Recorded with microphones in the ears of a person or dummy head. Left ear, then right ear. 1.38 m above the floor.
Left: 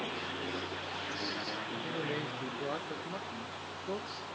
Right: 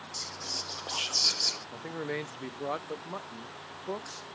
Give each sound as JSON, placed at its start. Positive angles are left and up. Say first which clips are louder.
{"t": 0.1, "sound": "whispering", "louder": "right 2 dB", "side_deg": -75, "distance_m": 0.6}
{"t": 1.7, "sound": "a man speaking", "louder": "even", "side_deg": -40, "distance_m": 0.8}